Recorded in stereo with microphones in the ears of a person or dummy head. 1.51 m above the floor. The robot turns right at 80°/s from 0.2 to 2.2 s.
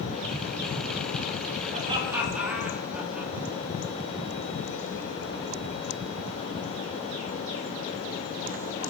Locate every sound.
1.7 s laughter: 50° right (ahead or behind), 4 m; by 3.3 s 10° right (ahead or behind), 4 m